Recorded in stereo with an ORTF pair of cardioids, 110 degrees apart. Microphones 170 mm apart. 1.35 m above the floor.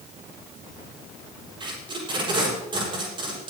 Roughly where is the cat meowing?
No cat meowing in this recording.